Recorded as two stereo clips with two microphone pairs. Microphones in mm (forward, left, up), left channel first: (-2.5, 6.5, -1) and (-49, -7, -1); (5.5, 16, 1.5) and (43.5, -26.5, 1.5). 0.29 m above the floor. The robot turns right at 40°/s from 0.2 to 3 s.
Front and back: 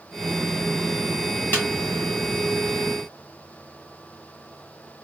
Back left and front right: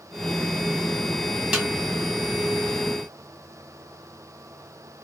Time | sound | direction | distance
1.5 | a snare drum | 35° left | 1.7 m